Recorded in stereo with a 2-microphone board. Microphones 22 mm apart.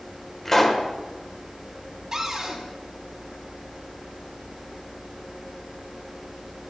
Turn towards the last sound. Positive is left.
turn(degrees=-35)  # may be behind; listen again after turning